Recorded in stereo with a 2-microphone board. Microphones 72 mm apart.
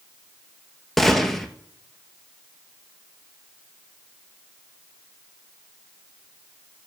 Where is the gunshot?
5° left (ahead or behind), 0.9 m.